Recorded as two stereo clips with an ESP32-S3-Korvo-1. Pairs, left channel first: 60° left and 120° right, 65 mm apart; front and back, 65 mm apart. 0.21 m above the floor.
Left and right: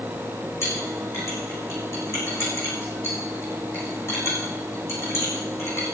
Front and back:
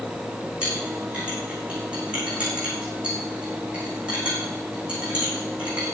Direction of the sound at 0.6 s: 105° left.